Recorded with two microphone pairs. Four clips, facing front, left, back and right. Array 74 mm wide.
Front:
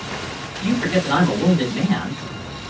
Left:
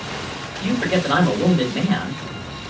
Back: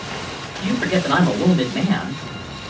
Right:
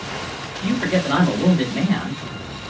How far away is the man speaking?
About 2 m.